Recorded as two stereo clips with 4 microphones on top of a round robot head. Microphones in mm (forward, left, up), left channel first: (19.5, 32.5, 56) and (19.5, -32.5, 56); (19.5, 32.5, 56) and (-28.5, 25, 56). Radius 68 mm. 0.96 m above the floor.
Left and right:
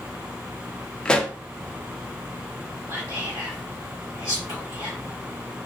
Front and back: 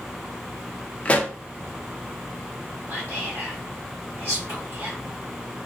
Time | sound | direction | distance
1.1 | a pop | 25° left | 0.5 m
2.9 | whispering | 135° right | 1.1 m